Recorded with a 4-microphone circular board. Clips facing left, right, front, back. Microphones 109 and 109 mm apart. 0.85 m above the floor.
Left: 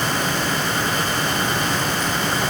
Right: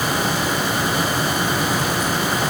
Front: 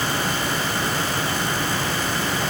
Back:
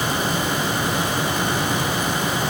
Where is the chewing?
I don't hear chewing.